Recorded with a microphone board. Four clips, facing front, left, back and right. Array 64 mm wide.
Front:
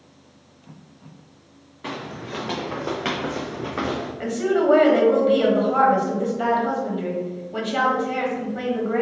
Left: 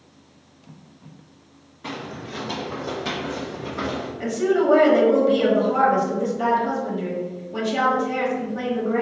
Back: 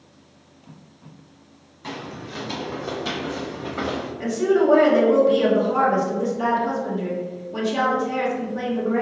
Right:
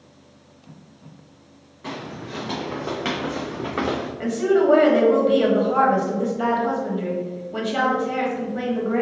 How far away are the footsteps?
About 1.6 m.